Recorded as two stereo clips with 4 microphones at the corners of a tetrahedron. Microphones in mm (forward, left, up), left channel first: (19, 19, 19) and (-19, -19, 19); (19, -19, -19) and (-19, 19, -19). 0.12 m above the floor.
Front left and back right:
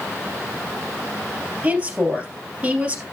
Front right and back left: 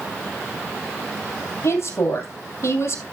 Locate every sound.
1.6 s a woman speaking: 70° right, 2.5 m